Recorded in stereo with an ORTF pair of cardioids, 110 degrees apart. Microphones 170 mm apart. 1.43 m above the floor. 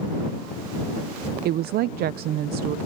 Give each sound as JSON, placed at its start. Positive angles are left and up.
{"t": 1.4, "sound": "a woman speaking", "azimuth_deg": -70}